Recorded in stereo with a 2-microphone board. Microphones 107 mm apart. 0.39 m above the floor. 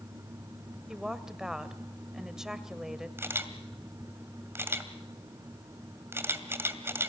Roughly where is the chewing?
I don't hear chewing.